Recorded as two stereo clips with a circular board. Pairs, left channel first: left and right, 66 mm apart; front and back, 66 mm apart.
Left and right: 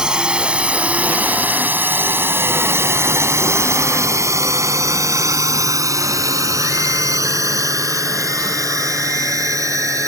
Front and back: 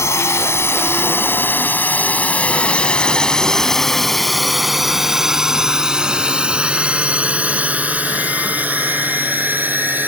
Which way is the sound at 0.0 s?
20° right.